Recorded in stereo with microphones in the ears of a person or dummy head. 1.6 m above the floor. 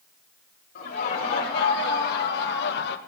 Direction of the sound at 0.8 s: 60° left (ahead or behind).